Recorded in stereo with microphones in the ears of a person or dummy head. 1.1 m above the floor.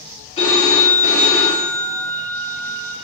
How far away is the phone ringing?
About 1.3 m.